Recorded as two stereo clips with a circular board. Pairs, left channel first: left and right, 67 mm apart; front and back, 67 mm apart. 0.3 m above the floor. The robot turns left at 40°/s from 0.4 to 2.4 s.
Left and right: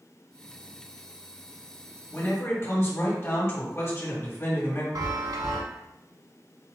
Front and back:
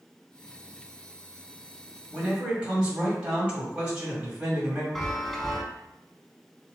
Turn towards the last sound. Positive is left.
turn(degrees=-85)